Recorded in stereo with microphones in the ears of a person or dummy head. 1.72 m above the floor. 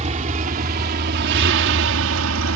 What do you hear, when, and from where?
0.0 s a vehicle: 40° right (ahead or behind); by 2.6 s 80° right